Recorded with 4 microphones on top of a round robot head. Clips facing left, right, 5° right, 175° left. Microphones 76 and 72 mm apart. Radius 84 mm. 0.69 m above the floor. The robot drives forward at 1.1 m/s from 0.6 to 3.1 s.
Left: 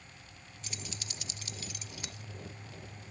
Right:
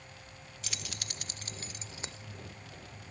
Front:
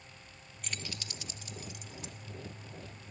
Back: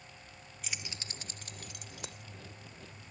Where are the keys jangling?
100° right; by 2.2 s 155° right.